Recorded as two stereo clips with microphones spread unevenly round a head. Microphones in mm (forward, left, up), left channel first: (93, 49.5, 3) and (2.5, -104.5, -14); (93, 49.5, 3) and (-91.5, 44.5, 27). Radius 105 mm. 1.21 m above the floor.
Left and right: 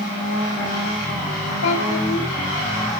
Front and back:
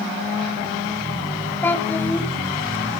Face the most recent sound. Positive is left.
turn(degrees=80)